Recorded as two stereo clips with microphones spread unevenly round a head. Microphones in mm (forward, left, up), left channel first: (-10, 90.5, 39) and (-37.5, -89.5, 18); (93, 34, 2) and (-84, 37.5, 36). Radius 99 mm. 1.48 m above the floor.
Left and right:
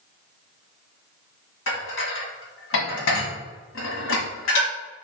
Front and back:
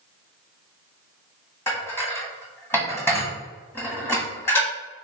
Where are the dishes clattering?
80° left, 1.5 m.